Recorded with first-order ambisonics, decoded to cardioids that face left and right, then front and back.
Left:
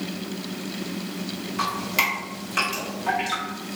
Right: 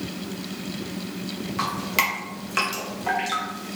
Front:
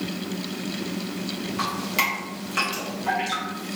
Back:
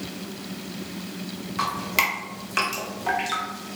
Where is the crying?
I don't hear crying.